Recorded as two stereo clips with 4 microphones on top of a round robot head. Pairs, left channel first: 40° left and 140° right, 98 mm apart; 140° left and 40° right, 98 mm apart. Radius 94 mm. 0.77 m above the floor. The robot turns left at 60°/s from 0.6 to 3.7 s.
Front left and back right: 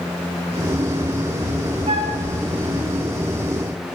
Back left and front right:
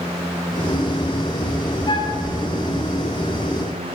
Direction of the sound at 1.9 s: 170° right.